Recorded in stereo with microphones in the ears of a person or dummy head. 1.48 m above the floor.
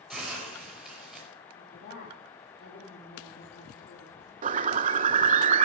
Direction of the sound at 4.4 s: 40° right (ahead or behind).